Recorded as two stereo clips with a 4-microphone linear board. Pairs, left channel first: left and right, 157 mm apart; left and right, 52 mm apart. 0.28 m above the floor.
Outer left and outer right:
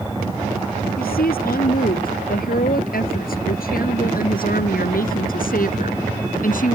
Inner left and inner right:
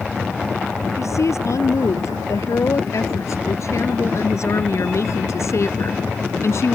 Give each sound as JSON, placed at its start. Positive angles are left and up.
{"t": 1.0, "sound": "a woman speaking", "side_deg": 75}